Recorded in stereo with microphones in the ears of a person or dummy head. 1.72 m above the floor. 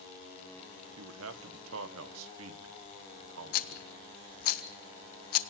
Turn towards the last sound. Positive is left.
turn(degrees=55)  # may be behind; listen again after turning